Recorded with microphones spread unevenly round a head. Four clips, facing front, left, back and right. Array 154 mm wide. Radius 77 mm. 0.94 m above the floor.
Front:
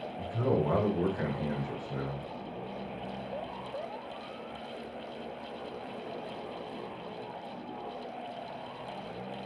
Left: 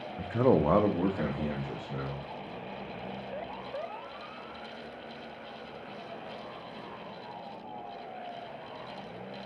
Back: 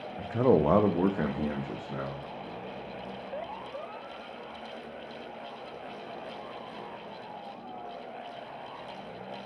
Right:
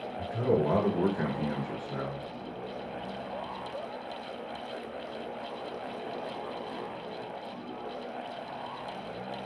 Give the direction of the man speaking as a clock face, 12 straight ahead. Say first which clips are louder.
Left 3 dB, back 6 dB; 8 o'clock.